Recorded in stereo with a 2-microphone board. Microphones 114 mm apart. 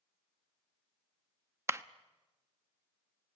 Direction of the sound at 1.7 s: 25° right (ahead or behind).